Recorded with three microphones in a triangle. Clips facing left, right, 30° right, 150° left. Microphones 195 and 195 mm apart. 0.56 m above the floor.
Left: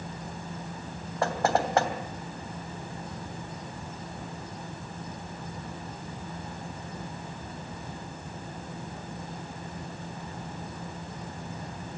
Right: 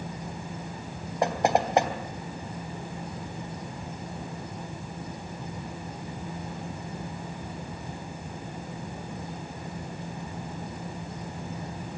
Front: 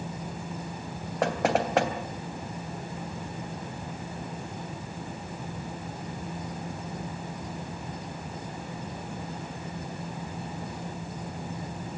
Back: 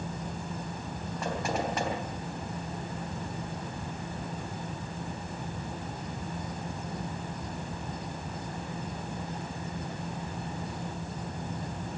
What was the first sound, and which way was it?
Knocking, 15° right.